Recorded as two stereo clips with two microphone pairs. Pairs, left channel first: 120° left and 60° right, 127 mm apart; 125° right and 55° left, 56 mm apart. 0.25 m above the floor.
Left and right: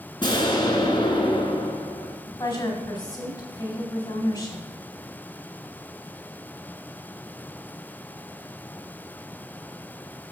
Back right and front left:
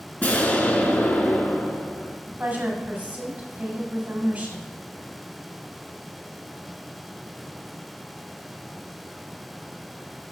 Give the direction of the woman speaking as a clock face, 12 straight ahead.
9 o'clock.